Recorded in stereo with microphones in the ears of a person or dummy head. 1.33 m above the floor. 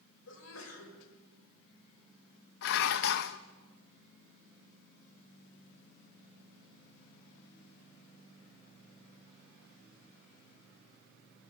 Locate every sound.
0.3 s a sneeze: 80° left, 5.5 m
2.6 s dishes clattering: 65° left (ahead or behind), 0.9 m